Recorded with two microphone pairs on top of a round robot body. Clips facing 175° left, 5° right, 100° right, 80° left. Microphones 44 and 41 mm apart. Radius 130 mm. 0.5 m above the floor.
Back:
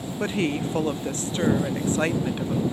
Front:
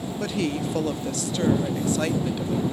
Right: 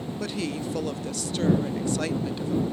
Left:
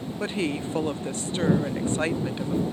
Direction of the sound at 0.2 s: 130° left.